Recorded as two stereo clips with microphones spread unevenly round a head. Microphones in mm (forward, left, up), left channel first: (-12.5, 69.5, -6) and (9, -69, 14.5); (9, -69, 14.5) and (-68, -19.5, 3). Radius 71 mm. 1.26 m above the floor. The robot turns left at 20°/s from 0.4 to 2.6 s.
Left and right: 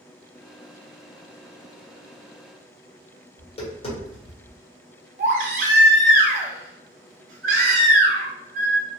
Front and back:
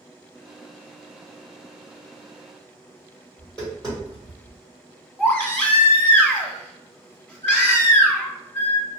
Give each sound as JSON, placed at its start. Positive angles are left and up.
{"t": 3.4, "sound": "tapping", "azimuth_deg": 50, "distance_m": 1.4}
{"t": 5.2, "sound": "a baby crying", "azimuth_deg": -105, "distance_m": 0.8}